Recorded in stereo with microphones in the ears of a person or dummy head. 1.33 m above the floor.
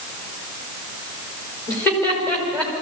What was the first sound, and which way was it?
Laughter, 10° left (ahead or behind).